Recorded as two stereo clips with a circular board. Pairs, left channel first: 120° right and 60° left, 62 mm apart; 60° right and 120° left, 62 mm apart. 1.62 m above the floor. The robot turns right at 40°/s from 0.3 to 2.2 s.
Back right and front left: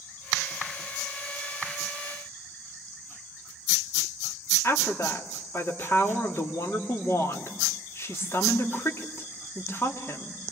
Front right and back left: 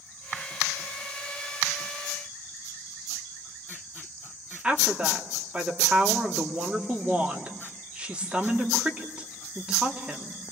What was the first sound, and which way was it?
A woman speaking, 165° right.